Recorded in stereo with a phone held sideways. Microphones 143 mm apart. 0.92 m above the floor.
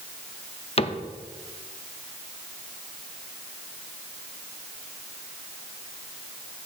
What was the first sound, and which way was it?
A cupboard door, 45° left (ahead or behind).